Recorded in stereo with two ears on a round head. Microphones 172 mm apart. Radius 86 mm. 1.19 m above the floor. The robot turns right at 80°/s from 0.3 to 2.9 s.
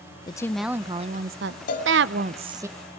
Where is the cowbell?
45° left (ahead or behind), 1.7 m; by 1.9 s 50° left (ahead or behind), 1.7 m.